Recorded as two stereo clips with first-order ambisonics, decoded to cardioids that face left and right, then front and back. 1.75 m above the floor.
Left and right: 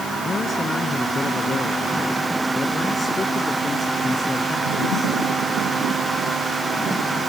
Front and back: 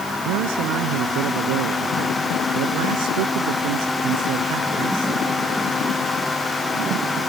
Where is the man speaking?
165° left; by 5.2 s 170° left.